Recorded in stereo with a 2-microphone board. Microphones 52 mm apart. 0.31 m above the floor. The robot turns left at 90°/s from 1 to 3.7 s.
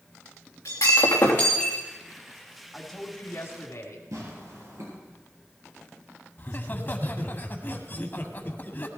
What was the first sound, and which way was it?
Breaking glass, 80° left.